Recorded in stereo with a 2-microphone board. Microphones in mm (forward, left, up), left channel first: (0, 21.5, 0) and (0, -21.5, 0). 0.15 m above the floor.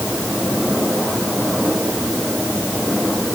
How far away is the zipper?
No zipper in this recording.